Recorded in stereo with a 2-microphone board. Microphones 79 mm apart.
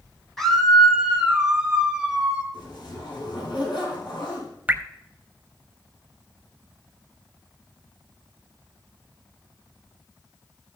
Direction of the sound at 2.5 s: 80° left.